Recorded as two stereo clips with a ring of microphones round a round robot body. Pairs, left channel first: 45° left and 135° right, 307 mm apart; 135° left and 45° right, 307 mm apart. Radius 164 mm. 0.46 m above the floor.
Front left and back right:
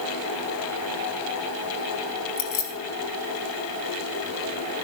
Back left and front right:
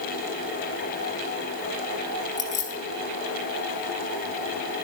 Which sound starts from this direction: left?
Keys jangling, at 2.4 s.